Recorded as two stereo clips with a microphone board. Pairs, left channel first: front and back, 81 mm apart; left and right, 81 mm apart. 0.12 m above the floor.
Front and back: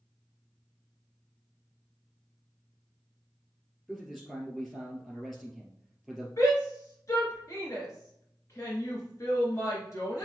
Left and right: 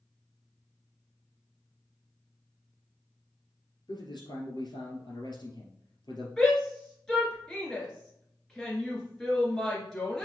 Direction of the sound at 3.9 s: 85° left.